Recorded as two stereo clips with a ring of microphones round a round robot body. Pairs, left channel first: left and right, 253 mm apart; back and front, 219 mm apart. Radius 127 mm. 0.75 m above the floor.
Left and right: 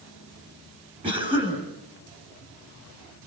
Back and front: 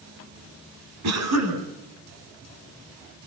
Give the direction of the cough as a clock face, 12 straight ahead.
1 o'clock.